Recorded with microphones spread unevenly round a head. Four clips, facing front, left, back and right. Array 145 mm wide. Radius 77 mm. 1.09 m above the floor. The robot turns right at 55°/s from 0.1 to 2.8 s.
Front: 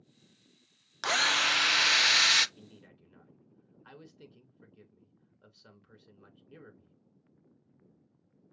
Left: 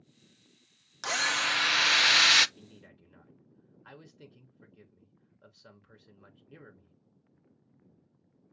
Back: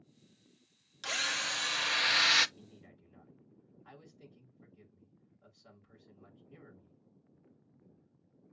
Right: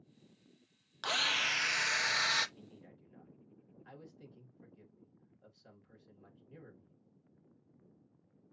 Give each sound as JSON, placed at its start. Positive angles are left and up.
{"t": 1.0, "sound": "a drill", "azimuth_deg": 5, "distance_m": 0.5}
{"t": 2.6, "sound": "a man speaking", "azimuth_deg": 40, "distance_m": 3.5}